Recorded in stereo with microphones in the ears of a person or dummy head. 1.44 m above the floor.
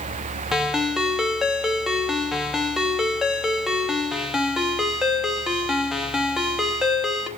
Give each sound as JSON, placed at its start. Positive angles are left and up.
{"t": 0.5, "sound": "a ringtone", "side_deg": -5, "distance_m": 0.9}